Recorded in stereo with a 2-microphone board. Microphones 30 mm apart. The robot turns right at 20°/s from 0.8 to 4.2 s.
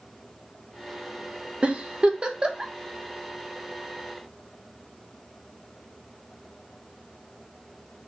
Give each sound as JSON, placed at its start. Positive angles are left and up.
{"t": 1.6, "sound": "a giggle", "side_deg": -40, "distance_m": 0.7}